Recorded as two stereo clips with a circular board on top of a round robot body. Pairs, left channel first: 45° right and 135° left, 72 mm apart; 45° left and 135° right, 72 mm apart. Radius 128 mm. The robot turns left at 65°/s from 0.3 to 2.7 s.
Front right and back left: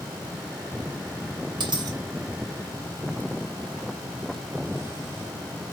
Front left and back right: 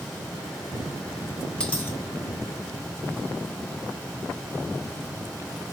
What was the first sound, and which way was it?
A dropped coin, 120° left.